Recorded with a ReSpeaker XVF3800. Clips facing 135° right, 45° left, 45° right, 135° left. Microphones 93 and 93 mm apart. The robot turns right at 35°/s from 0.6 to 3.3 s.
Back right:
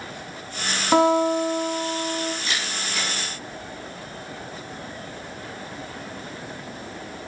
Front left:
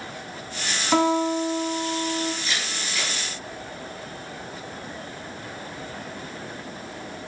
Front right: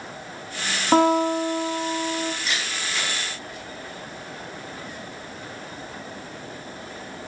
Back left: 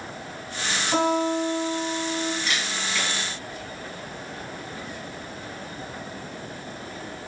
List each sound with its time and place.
0.9 s a guitar: 70° right, 0.8 m; by 2.3 s 20° right, 0.8 m
2.4 s a camera shutter: 130° right, 2 m; by 3.1 s 110° right, 2 m